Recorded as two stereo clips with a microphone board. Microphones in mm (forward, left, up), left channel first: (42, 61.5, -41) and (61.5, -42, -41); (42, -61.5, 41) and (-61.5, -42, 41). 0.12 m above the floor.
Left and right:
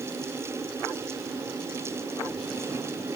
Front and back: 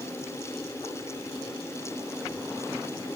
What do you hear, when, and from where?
Only background noise.